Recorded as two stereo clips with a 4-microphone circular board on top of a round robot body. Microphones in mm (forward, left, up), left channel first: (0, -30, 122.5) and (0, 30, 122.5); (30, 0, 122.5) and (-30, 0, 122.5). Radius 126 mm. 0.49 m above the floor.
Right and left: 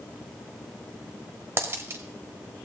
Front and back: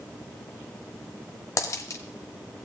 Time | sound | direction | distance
1.6 | a dropped coin | 35° left | 0.9 m